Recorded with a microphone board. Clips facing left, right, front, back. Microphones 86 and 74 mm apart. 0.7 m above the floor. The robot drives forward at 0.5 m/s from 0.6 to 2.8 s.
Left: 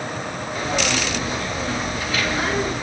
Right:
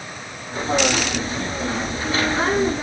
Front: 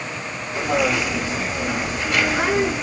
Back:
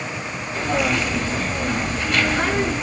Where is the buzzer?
I don't hear a buzzer.